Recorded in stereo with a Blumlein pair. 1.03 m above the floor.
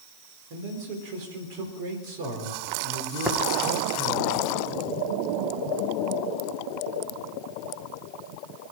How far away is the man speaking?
About 4 m.